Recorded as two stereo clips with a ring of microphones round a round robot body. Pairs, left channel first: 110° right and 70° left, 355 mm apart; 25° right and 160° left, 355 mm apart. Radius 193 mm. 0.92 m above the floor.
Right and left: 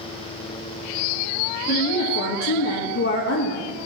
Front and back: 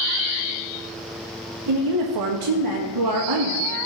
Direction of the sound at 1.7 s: 170° right.